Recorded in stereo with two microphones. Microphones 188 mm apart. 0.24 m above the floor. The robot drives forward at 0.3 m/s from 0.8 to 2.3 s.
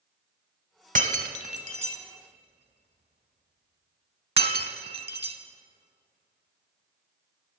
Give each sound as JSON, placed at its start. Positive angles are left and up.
{"t": 0.9, "sound": "breaking glass", "side_deg": -45, "distance_m": 1.0}